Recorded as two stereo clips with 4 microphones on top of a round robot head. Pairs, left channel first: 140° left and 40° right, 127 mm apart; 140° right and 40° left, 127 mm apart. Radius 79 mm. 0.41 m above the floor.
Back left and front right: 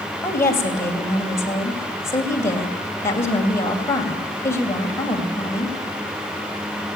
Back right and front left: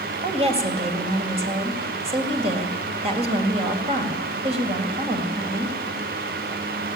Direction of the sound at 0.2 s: 70° left.